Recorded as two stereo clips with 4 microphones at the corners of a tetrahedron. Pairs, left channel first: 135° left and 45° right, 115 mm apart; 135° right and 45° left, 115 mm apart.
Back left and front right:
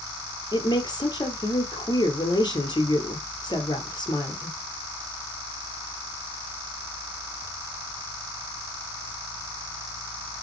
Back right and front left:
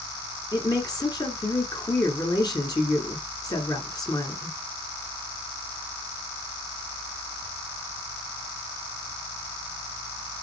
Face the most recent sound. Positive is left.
turn(degrees=180)